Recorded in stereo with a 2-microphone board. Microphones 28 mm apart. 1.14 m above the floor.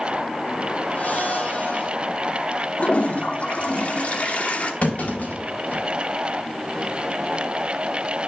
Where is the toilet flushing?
50° left (ahead or behind), 1.0 m.